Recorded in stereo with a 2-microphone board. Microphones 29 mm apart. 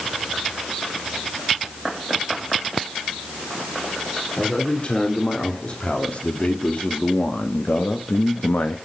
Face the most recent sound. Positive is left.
turn(degrees=75)  # may be behind; listen again after turning